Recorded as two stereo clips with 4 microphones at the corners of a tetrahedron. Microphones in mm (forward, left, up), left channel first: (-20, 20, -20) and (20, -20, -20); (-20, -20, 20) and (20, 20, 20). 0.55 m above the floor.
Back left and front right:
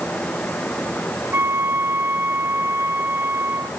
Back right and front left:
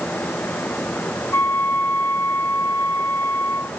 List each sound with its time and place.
1.3 s a flute: 85° right, 1.1 m